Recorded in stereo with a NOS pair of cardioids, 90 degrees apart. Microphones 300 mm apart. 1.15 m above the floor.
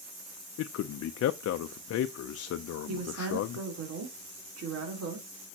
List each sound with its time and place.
0.6 s a man speaking: 55° left, 0.6 m
2.9 s a woman speaking: 55° right, 3 m